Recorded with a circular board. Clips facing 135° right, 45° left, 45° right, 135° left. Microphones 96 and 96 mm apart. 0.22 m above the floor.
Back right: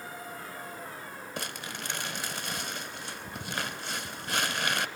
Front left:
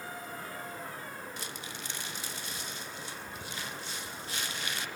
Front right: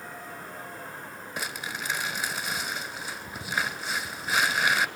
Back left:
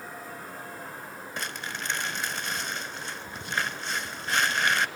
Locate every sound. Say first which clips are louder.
1.4 s crumpling: back right 4 dB, front right 1 dB; 125° right, 1.4 m